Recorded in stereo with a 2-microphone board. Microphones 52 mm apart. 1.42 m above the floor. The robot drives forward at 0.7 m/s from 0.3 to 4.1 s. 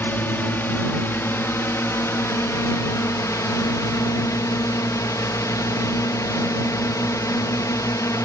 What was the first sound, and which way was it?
A drone, 40° left (ahead or behind).